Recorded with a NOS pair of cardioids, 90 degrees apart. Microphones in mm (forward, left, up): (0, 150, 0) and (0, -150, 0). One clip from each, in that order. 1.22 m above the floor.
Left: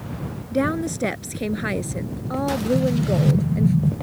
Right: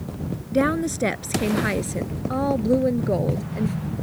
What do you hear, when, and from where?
0.5 s a woman speaking: 10° right
2.8 s an explosion: 65° left